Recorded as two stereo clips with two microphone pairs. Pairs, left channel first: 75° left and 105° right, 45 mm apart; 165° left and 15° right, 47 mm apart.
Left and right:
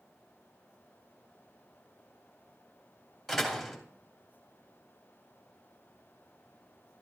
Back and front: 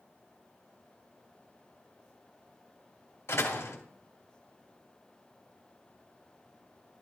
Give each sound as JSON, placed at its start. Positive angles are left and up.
{"t": 3.3, "sound": "a door slam", "azimuth_deg": 160, "distance_m": 1.9}